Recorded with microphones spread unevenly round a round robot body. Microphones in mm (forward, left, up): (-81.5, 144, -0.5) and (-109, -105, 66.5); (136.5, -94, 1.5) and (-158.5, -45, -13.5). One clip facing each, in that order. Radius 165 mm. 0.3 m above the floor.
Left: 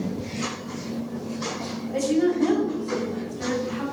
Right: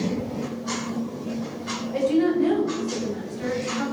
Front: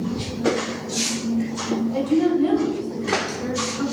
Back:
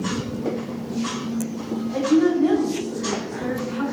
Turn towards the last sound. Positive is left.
turn(degrees=50)